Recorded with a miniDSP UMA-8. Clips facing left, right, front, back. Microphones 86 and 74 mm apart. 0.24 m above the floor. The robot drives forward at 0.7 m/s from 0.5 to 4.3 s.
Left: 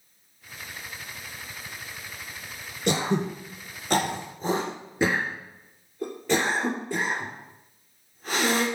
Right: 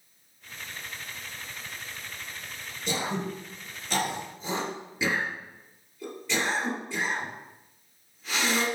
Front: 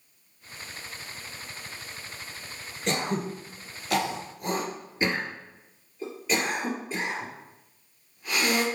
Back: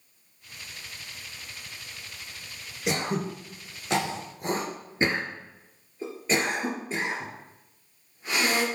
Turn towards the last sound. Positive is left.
turn(degrees=125)